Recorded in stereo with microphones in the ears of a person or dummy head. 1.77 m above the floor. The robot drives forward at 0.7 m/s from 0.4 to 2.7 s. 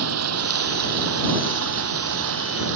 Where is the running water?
70° right (ahead or behind); by 2.8 s 60° right (ahead or behind).